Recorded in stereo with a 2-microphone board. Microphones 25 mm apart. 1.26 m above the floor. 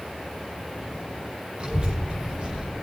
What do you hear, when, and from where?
1.6 s a child speaking: 50° right (ahead or behind), 5 m; by 2.7 s 55° right (ahead or behind), 6 m